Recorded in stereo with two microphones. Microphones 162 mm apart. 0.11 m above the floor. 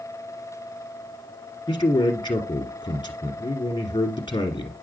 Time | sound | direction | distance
1.7 | a man speaking | 30° left (ahead or behind) | 1.6 m